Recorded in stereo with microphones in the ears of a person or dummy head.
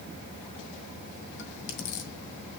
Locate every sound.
1.4 s chewing: 65° left (ahead or behind), 2 m